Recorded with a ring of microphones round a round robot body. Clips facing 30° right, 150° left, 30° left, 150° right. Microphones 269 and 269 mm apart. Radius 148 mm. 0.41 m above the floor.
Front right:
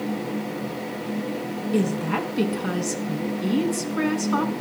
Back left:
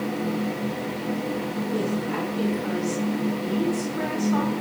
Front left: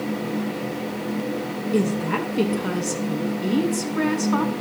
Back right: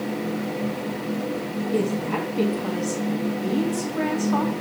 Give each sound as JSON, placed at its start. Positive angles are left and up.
{"t": 1.7, "sound": "a woman speaking", "azimuth_deg": -35, "distance_m": 4.5}